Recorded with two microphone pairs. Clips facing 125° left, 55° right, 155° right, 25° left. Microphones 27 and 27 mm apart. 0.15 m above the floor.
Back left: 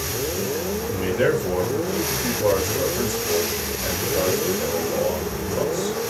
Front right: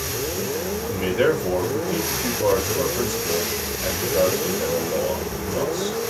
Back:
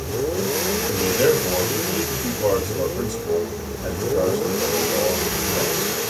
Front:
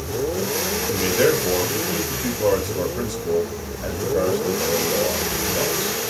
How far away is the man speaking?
About 2.5 m.